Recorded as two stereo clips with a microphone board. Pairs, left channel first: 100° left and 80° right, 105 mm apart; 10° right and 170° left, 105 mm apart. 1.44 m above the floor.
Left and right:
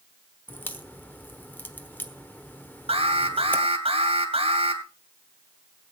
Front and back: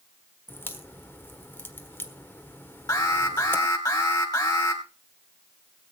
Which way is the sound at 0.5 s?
40° left.